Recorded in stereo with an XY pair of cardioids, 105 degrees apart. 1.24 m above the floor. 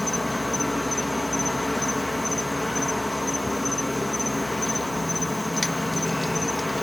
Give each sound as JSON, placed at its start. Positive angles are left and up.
{"t": 0.0, "sound": "an insect", "azimuth_deg": 10}